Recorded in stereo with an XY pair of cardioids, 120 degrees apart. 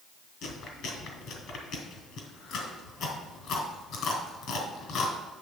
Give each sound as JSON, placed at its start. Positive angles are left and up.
{"t": 0.4, "sound": "chewing", "azimuth_deg": 70, "distance_m": 2.5}